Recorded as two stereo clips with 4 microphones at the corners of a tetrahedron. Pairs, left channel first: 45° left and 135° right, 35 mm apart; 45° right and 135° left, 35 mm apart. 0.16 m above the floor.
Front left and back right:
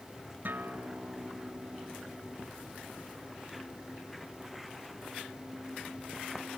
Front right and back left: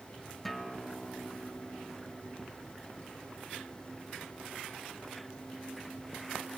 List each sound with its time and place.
0.5 s a guitar: 130° right, 2.5 m